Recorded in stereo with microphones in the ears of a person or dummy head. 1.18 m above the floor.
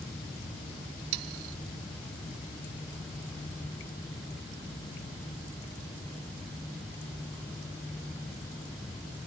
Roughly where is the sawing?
Right.